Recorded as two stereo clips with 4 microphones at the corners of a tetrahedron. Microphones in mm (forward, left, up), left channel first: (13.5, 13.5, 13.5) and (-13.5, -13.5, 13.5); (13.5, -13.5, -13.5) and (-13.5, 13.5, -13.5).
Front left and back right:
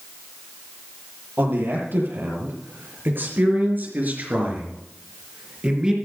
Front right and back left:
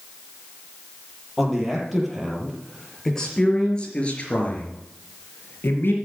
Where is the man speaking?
135° right, 6.5 m; by 6.0 s 65° right, 4 m.